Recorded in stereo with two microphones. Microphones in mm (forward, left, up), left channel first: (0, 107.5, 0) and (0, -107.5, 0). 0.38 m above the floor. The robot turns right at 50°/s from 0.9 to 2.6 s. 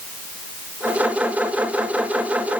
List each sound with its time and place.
Only background noise.